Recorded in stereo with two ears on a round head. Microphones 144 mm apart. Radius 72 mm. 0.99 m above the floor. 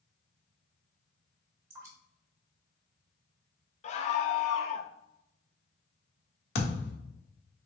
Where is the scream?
40° left (ahead or behind), 0.7 m.